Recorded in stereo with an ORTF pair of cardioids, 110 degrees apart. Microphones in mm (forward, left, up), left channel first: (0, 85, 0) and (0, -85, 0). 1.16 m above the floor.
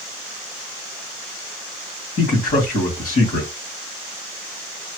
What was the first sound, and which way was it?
A man speaking, 50° left.